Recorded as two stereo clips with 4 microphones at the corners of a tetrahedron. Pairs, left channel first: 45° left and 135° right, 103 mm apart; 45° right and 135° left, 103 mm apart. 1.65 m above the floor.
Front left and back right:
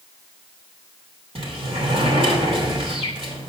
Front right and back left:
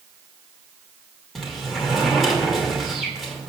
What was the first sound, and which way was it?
A sliding door, 135° right.